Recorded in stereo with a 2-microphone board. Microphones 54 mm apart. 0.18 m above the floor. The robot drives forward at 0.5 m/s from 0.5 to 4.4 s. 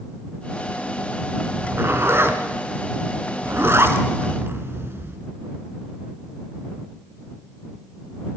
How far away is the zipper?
About 2.5 m.